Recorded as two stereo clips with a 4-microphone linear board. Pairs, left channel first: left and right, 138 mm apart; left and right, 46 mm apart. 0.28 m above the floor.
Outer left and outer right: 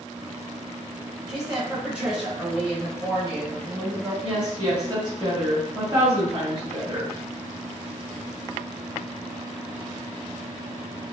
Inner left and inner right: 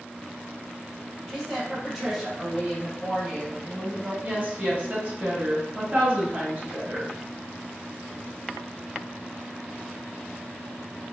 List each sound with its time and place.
1.3 s a woman speaking: 5° right (ahead or behind), 1.3 m; by 4.1 s 10° right (ahead or behind), 1.2 m
4.2 s a woman speaking: 30° right (ahead or behind), 1.2 m